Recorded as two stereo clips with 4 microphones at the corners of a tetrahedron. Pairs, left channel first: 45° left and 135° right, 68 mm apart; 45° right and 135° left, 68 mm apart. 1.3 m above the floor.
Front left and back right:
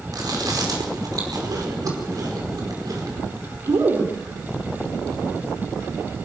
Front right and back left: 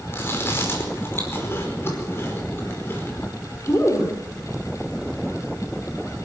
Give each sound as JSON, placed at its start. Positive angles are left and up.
{"t": 0.1, "sound": "chewing", "azimuth_deg": -100, "distance_m": 5.0}